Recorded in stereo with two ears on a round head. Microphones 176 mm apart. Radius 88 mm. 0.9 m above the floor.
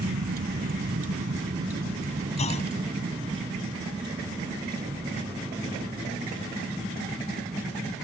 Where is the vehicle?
55° right (ahead or behind); by 8.1 s 15° right (ahead or behind).